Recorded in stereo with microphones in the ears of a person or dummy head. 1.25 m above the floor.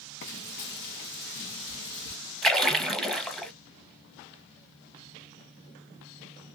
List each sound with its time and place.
0.2 s frying: 60° left (ahead or behind), 1.3 m
2.4 s a splash: centre (ahead or behind), 0.8 m